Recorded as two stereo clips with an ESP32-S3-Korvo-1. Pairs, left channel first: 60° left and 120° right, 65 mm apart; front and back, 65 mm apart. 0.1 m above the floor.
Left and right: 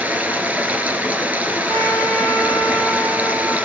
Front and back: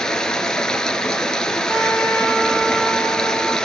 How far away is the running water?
About 1.4 m.